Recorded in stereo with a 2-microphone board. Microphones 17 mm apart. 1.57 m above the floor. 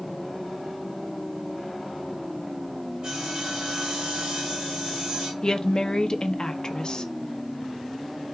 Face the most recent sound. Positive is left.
turn(degrees=50)  # may be behind; listen again after turning